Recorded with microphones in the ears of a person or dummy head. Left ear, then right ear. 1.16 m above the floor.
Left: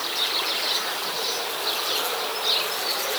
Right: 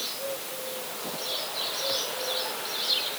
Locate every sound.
Only background noise.